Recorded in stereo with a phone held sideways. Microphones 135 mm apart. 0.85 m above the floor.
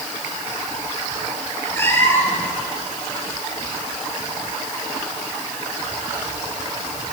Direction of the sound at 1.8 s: 15° left (ahead or behind).